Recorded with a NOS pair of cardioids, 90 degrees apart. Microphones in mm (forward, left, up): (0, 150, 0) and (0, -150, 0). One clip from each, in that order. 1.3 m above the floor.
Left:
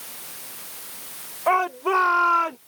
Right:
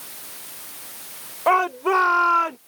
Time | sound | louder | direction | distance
1.5 | a shout | right 2 dB | 20° right | ?